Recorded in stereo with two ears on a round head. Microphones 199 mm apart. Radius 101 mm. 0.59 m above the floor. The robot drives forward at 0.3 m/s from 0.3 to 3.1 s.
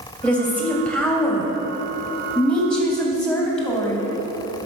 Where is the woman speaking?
5° left (ahead or behind), 3 m.